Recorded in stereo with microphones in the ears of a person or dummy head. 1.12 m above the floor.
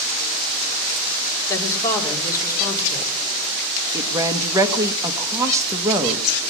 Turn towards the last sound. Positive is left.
turn(degrees=-20)  # may be behind; listen again after turning